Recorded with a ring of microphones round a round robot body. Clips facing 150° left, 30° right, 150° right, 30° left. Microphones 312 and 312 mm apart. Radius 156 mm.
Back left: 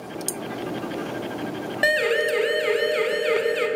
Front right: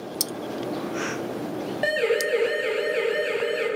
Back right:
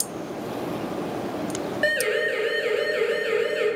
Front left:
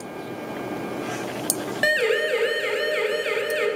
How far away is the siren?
About 4.5 m.